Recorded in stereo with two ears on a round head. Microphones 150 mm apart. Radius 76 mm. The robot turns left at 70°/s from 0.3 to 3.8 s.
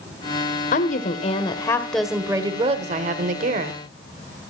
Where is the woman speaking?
90° left, 1.4 m; by 3.8 s 125° right, 1.4 m.